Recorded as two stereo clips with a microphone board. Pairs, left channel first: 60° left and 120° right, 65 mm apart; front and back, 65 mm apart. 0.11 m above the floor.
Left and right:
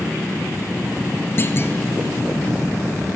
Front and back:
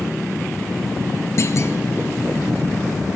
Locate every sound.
1.4 s a clunk: 20° left, 0.8 m